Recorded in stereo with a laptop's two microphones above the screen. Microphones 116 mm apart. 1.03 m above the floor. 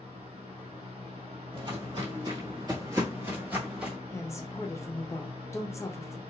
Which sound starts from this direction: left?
A woman speaking, at 4.1 s.